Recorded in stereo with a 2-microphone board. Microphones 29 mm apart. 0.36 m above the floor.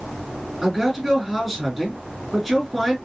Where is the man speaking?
10° right (ahead or behind), 3.5 m.